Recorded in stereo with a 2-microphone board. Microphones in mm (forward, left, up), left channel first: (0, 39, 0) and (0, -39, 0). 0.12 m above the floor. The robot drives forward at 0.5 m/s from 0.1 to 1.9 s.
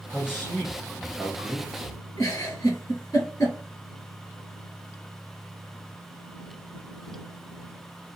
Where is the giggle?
50° left (ahead or behind), 1.5 m.